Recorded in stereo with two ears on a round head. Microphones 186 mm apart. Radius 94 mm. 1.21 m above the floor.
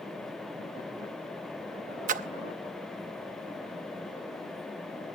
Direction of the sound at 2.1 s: 40° right (ahead or behind).